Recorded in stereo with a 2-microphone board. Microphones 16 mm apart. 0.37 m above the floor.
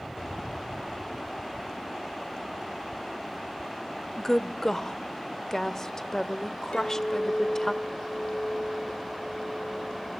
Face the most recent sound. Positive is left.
turn(degrees=70)  # may be behind; listen again after turning